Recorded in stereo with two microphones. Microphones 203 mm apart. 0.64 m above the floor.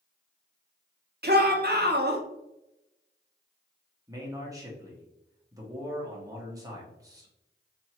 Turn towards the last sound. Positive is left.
turn(degrees=-15)  # may be behind; listen again after turning